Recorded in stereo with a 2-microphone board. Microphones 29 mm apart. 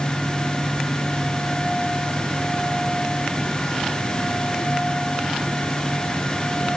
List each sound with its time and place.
Only background noise.